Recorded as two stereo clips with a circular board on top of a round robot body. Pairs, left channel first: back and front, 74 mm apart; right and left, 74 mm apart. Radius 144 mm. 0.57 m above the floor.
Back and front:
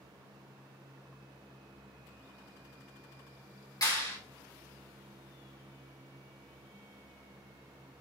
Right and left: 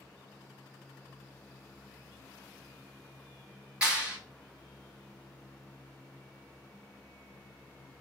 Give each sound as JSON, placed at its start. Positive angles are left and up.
{"t": 3.8, "sound": "a clap", "azimuth_deg": 165, "distance_m": 2.5}